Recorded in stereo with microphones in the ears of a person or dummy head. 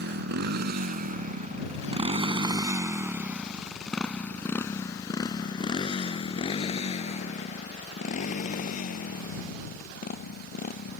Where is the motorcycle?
65° right (ahead or behind); by 11.0 s 50° left (ahead or behind).